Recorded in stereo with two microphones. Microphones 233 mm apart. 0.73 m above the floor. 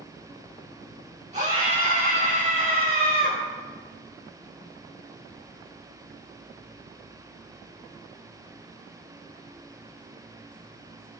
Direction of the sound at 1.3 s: 30° right (ahead or behind).